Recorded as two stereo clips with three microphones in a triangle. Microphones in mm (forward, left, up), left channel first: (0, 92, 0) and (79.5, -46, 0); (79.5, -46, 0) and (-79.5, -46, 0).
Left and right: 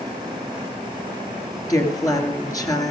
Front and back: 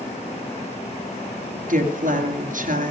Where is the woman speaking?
175° right, 3 m.